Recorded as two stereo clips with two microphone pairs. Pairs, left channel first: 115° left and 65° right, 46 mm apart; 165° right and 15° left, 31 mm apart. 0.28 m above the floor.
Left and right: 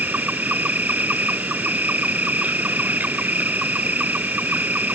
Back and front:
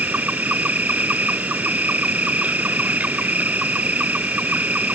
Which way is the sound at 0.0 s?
15° right.